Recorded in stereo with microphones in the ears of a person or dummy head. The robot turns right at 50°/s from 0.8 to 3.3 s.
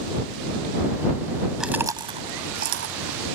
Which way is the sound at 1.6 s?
5° right (ahead or behind).